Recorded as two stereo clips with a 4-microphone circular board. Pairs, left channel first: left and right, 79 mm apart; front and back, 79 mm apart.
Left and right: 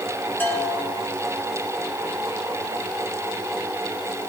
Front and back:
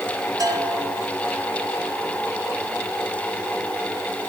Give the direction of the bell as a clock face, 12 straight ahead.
7 o'clock.